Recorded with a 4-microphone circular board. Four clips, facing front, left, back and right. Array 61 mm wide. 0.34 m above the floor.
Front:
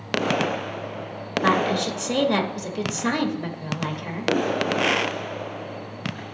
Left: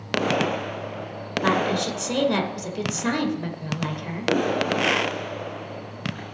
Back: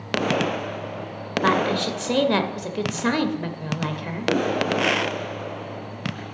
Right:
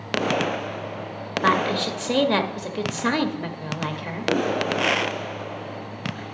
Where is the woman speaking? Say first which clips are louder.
Right 1 dB, even; 125° right, 0.9 m.